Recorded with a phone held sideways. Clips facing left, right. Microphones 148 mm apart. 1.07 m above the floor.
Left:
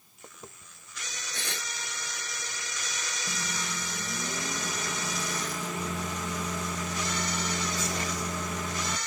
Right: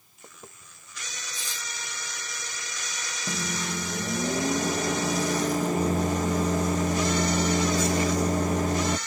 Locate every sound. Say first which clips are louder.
1.3 s tearing paper: left 5 dB; 65° left (ahead or behind)
3.3 s a microwave: right 8 dB; 40° right (ahead or behind)